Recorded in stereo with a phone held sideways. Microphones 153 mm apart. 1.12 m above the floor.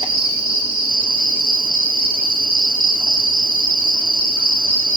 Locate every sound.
0.0 s an insect: 35° right (ahead or behind), 2 m